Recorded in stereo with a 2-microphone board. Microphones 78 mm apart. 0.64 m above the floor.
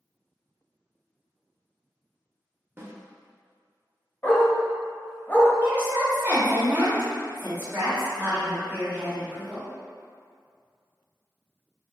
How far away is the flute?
I don't hear a flute.